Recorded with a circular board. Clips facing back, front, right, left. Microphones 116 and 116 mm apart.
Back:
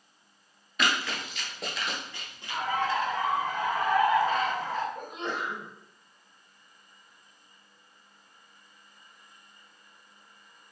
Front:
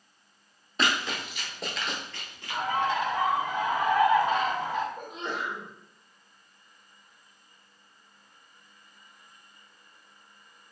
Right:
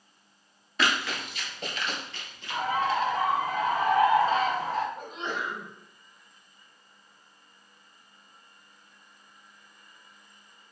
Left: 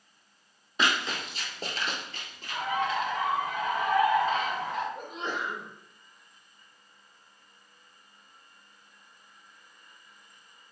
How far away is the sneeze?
About 1.7 m.